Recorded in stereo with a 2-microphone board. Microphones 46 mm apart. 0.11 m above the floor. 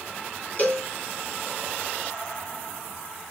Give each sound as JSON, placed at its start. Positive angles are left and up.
{"t": 0.6, "sound": "a cowbell", "side_deg": 35, "distance_m": 1.9}